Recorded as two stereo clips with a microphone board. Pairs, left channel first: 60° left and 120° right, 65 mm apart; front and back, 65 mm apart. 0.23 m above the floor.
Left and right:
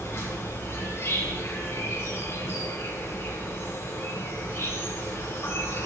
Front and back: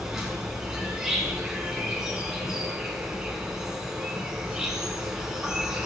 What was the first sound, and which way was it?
An insect, 100° left.